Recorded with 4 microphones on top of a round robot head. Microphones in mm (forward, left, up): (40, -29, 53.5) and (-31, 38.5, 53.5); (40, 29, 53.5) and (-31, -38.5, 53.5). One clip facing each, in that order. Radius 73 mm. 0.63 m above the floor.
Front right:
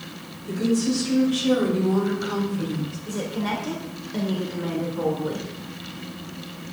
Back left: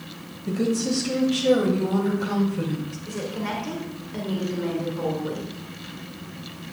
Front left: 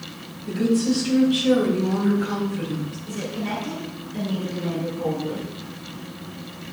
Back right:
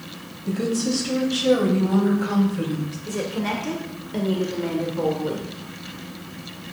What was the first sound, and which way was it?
A woman speaking, 165° left.